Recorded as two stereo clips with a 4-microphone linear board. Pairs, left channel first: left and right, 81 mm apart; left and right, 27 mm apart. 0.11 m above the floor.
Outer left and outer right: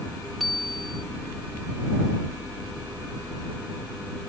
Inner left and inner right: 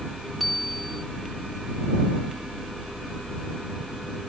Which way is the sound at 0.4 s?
Centre (ahead or behind).